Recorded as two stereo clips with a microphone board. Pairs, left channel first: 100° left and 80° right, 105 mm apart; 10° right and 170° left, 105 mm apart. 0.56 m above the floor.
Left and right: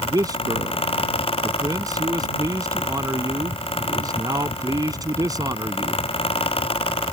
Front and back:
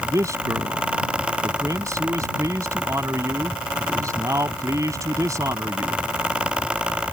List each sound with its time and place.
0.1 s a man speaking: 130° right